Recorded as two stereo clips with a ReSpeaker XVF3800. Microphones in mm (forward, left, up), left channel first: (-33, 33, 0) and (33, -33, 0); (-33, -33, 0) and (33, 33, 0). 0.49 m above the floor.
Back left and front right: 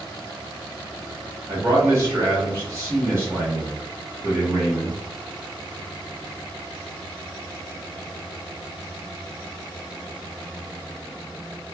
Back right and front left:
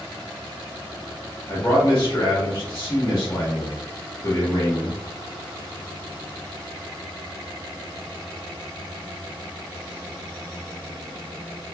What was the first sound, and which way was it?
A man speaking, 100° right.